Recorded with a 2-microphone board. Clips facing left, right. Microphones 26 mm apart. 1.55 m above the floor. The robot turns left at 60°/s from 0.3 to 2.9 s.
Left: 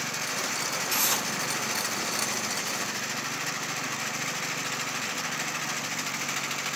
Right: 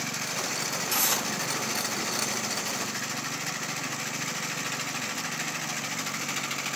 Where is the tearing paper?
10° left (ahead or behind), 4.5 m; by 1.3 s 15° right (ahead or behind), 4.5 m.